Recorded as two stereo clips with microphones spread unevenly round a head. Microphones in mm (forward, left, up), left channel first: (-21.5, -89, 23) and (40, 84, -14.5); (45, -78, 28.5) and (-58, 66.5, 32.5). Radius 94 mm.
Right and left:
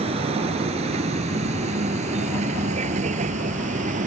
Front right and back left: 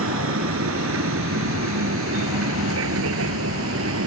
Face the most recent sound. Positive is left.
turn(degrees=125)